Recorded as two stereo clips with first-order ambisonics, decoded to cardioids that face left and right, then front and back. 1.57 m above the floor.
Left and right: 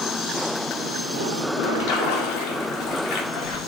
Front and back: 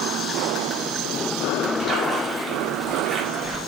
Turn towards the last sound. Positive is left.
turn(degrees=100)